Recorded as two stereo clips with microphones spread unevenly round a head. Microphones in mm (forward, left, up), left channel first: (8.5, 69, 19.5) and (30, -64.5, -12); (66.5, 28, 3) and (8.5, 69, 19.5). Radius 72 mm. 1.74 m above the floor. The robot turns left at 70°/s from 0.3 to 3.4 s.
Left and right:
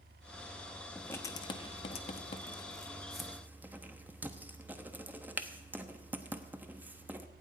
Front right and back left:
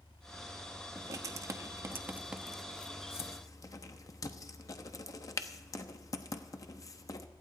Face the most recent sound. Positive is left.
turn(degrees=5)